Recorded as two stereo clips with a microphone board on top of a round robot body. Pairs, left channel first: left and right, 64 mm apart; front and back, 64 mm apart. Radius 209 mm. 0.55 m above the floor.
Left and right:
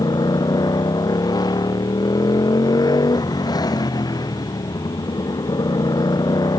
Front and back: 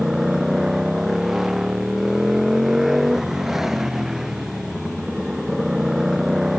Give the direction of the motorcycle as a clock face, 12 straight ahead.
9 o'clock.